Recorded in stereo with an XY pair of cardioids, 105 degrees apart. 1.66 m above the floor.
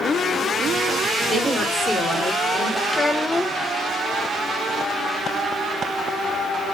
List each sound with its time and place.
1.3 s a woman speaking: 5° right, 5.5 m; by 2.8 s 15° left, 6.5 m
2.9 s a child speaking: 15° left, 1.4 m